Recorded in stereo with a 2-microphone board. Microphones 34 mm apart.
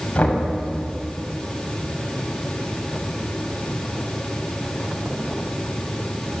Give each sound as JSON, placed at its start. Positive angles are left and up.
{"t": 0.1, "sound": "knocking", "side_deg": 45, "distance_m": 6.0}